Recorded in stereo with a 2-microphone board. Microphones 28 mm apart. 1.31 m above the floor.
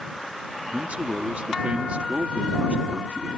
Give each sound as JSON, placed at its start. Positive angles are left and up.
{"t": 0.7, "sound": "a man speaking", "side_deg": -55}